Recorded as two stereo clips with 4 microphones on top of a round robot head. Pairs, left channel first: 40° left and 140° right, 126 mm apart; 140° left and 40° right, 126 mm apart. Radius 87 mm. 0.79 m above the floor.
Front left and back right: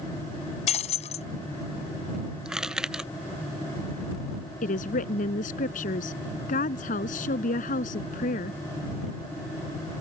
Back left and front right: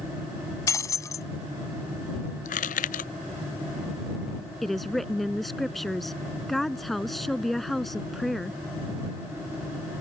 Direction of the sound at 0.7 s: 75° left.